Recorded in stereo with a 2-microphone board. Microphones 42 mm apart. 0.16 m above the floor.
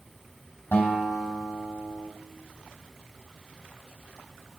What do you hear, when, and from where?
0.7 s a guitar: 50° left (ahead or behind), 3 m